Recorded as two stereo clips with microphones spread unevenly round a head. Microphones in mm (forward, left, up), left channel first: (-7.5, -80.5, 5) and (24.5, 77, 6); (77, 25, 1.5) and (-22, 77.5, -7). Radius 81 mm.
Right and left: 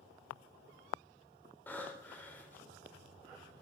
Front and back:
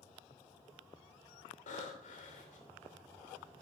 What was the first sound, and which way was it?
Breathing, 20° right.